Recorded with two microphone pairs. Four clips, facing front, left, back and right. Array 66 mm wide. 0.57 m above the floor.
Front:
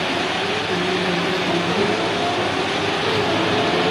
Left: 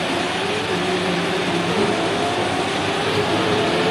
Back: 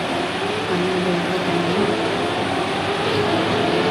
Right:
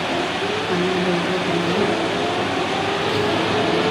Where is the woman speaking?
135° right, 1.0 m.